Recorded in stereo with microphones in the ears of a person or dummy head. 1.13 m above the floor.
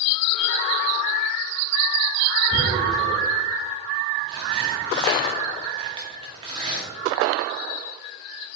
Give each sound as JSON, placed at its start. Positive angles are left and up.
{"t": 2.5, "sound": "tearing paper", "side_deg": -25, "distance_m": 0.9}